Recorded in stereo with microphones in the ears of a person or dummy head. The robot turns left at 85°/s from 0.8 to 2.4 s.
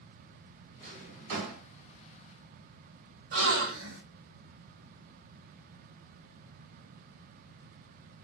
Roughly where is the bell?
I don't hear a bell.